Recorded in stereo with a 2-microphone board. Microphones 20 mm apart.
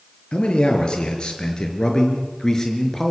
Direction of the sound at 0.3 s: 55° left (ahead or behind).